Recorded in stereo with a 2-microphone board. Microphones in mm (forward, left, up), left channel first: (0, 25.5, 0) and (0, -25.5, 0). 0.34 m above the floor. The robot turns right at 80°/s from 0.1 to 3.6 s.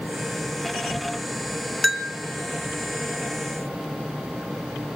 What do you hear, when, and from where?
1.8 s a bell: centre (ahead or behind), 3 m; by 2.1 s 20° right (ahead or behind), 3 m